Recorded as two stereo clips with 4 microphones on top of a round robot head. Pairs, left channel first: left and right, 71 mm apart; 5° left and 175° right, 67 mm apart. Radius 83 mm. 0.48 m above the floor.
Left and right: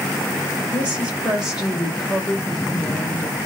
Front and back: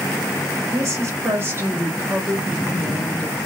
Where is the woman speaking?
155° right, 1.8 m; by 3.4 s 65° left, 1.4 m.